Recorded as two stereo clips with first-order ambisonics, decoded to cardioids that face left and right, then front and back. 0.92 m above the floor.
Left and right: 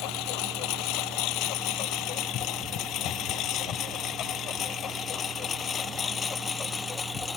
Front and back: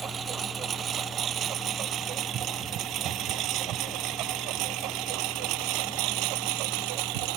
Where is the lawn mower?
115° left; by 7.4 s 165° left.